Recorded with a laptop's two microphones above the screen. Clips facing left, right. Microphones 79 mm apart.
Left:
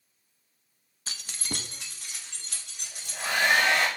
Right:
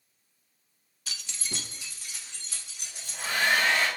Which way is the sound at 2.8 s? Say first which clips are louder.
Left 2 dB; 80° left.